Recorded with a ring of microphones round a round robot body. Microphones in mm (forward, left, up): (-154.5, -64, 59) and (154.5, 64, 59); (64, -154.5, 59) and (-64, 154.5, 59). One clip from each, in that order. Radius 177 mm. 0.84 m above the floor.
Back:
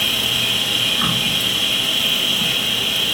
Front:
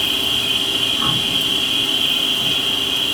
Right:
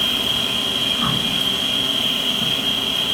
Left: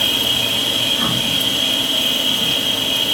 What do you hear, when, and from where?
0.0 s an insect: 175° left, 3.5 m